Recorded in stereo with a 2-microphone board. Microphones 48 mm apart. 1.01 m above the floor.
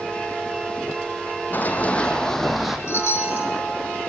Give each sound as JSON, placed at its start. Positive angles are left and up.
{"t": 1.5, "sound": "running footsteps", "side_deg": 40, "distance_m": 2.0}
{"t": 2.9, "sound": "a chime", "side_deg": 70, "distance_m": 1.8}